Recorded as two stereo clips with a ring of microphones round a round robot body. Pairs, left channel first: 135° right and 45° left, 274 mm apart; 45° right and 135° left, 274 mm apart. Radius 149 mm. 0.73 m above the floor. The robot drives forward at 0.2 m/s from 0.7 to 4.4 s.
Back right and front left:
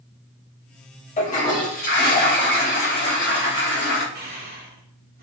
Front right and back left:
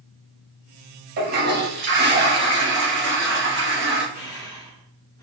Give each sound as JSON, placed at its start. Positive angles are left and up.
{"t": 1.2, "sound": "a toilet flushing", "azimuth_deg": 175, "distance_m": 0.6}
{"t": 4.2, "sound": "breathing", "azimuth_deg": 20, "distance_m": 0.5}